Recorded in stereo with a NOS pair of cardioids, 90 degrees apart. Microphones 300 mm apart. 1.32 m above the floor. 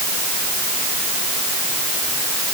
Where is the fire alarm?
No fire alarm in this recording.